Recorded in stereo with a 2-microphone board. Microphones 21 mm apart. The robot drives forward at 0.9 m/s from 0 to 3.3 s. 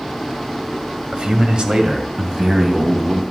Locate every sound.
1.1 s a man speaking: 60° right (ahead or behind), 1.7 m; by 3.2 s 35° right (ahead or behind), 2.5 m